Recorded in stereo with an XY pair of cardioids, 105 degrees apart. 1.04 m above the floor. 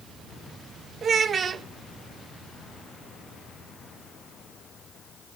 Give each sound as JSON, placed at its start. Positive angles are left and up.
{"t": 1.0, "sound": "a child speaking", "azimuth_deg": -45, "distance_m": 0.6}